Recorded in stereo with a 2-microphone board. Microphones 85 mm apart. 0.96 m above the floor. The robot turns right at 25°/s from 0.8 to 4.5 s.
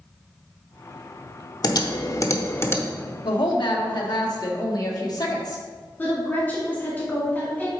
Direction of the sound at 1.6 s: 50° left (ahead or behind).